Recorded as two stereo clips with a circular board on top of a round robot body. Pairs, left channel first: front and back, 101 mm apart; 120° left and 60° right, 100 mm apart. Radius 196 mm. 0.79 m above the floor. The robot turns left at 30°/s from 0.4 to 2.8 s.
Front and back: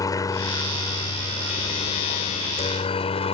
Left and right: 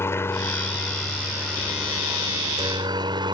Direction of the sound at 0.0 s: 55° left.